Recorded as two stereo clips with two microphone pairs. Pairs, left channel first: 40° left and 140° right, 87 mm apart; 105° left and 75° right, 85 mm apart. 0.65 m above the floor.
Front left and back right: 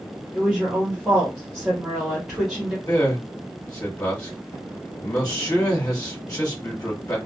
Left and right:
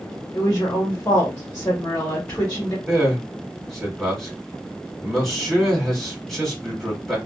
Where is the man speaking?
20° left, 1.4 m.